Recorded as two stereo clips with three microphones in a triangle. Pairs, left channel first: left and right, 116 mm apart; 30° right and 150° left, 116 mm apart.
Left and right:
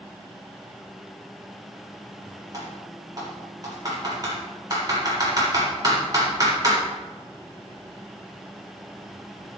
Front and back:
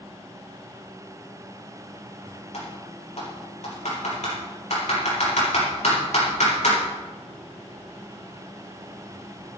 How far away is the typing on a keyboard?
About 7 m.